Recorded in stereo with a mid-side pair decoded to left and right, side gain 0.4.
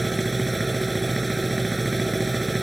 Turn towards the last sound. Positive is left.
turn(degrees=-15)